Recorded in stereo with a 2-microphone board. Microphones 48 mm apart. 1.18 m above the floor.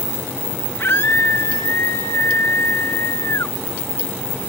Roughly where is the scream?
Left.